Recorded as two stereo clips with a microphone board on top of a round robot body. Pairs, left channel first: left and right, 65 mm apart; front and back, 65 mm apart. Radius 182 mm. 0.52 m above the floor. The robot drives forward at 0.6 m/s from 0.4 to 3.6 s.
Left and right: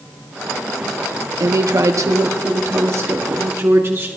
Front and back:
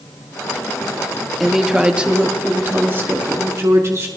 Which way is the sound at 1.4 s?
90° right.